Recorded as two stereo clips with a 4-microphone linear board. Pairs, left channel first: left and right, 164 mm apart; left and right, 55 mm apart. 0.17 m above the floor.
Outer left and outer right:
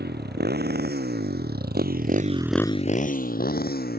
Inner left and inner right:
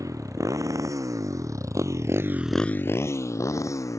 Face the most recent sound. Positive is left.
turn(degrees=70)  # may be behind; listen again after turning